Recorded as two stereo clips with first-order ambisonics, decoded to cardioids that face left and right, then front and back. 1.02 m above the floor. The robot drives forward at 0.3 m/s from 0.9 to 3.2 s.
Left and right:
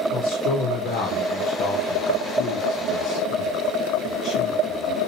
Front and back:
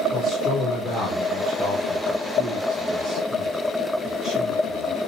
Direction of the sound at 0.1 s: 70° left.